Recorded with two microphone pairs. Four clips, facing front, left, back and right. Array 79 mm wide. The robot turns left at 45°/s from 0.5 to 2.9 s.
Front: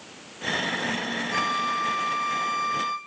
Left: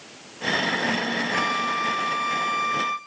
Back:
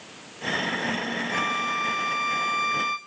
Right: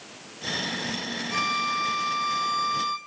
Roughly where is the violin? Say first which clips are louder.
Right 1 dB, front 2 dB; behind right.